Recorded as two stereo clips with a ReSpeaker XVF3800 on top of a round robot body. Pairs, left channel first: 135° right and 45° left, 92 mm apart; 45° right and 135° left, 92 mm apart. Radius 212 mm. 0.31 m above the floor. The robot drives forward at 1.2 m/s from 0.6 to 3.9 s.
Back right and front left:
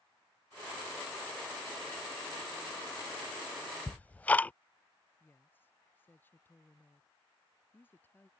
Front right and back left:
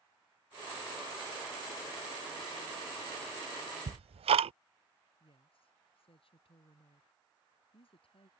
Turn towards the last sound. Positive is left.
turn(degrees=-65)